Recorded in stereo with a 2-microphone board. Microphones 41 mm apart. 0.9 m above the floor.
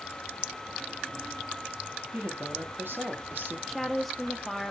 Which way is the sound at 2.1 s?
60° right (ahead or behind).